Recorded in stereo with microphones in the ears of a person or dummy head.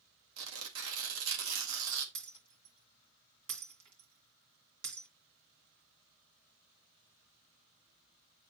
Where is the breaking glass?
60° right (ahead or behind), 2.5 m.